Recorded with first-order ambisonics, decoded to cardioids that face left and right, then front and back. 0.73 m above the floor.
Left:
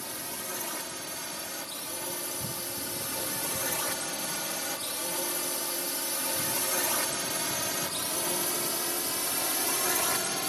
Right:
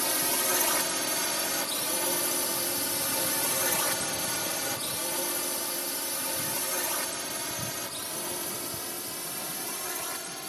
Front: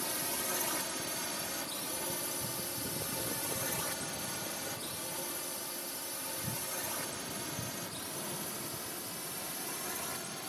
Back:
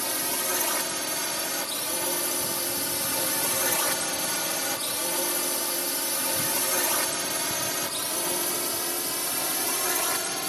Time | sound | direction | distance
0.0 | a drone | 130° right | ?